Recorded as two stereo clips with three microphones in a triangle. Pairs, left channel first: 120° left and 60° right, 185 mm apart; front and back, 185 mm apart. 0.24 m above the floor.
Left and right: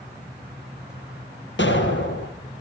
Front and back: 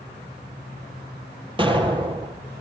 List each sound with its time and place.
1.6 s an explosion: 115° left, 2 m